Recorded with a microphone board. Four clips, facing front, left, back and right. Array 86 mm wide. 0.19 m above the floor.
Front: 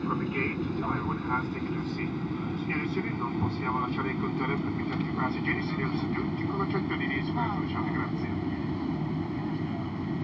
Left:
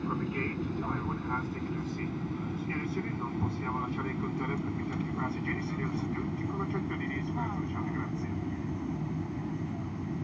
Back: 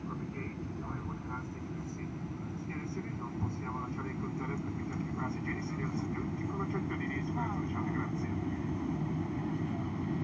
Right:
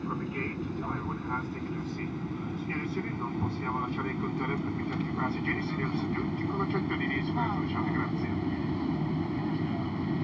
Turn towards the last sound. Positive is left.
turn(degrees=-60)